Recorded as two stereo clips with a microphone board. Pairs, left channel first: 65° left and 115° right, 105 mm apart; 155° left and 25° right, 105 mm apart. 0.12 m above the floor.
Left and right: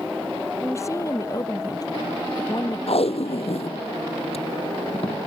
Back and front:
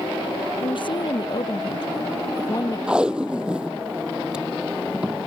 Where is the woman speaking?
130° left; by 2.8 s 105° left.